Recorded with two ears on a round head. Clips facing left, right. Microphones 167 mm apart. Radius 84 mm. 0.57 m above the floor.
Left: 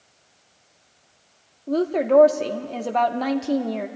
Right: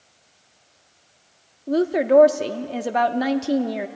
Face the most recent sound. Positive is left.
turn(degrees=-10)  # may be behind; listen again after turning